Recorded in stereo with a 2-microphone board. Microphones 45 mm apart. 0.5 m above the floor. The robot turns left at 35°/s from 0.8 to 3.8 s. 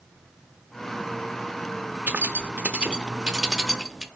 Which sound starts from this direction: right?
Keys jangling, at 2.1 s.